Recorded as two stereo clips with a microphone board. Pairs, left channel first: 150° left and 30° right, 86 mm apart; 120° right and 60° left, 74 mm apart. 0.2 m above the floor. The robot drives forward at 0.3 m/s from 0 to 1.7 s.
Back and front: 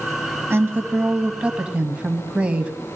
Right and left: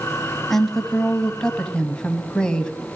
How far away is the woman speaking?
About 1.3 m.